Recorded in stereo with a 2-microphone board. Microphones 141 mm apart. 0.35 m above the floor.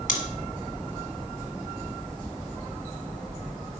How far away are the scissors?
About 1.2 m.